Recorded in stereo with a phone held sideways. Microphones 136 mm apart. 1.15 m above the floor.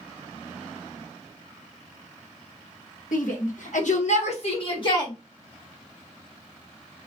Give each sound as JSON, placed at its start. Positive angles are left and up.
{"t": 3.1, "sound": "a shout", "side_deg": 80, "distance_m": 1.3}